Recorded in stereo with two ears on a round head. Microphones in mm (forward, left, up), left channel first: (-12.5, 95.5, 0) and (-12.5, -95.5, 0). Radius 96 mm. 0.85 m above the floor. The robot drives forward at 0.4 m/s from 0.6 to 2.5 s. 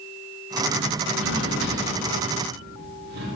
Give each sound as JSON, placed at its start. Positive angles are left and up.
{"t": 1.1, "sound": "a drawer", "side_deg": -75, "distance_m": 1.0}